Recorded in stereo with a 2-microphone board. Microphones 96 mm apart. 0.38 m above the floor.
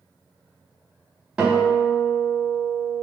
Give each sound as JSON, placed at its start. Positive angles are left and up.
{"t": 1.4, "sound": "a guitar", "side_deg": -10, "distance_m": 0.7}